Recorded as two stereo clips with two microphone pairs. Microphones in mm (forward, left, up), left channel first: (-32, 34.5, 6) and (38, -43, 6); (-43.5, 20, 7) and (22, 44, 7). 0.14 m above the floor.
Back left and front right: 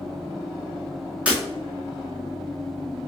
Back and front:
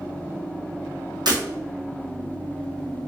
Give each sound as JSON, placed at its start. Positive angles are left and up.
{"t": 1.3, "sound": "breaking glass", "azimuth_deg": 30, "distance_m": 1.5}